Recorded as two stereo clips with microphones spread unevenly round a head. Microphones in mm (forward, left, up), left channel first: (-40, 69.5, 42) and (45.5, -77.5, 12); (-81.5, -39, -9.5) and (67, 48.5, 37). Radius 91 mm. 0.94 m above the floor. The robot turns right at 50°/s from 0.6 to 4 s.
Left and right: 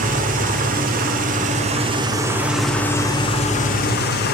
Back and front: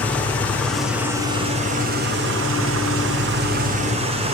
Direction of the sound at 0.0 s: 80° right.